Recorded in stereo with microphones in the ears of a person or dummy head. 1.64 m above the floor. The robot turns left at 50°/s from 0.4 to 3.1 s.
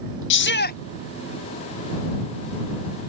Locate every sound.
0.3 s a shout: 65° left (ahead or behind); by 0.8 s 50° left (ahead or behind)